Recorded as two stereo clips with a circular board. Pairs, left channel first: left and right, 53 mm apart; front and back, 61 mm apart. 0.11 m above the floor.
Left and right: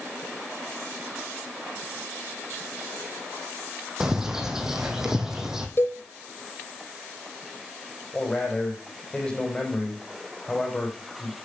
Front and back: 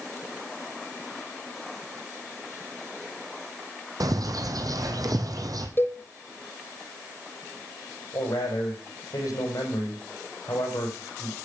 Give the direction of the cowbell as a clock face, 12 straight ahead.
10 o'clock.